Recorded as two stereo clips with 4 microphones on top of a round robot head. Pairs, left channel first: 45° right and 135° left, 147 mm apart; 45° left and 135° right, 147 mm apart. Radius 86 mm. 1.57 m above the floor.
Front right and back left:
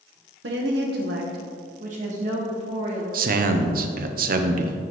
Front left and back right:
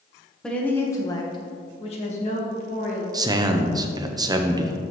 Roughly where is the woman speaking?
Behind left.